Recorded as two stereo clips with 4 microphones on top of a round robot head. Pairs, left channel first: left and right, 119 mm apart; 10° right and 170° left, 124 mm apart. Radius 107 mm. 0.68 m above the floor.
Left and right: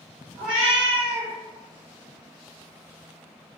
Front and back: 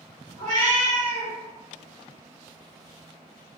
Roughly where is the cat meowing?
Behind.